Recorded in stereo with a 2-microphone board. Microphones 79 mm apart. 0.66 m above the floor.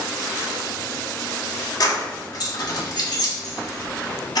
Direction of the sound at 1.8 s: 55° left (ahead or behind).